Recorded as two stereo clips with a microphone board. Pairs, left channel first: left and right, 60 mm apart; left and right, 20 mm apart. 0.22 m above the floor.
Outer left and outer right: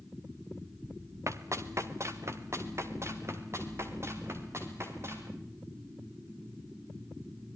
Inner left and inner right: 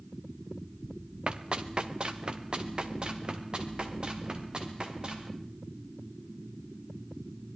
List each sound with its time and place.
1.3 s running footsteps: 55° right (ahead or behind), 1.8 m; by 5.3 s 45° right (ahead or behind), 6 m